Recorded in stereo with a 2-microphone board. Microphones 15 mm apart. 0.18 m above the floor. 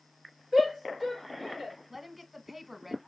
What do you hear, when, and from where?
0.5 s a shout: 5° left (ahead or behind), 3.5 m; by 1.8 s centre (ahead or behind), 3 m
1.9 s a woman speaking: 20° right (ahead or behind), 1.2 m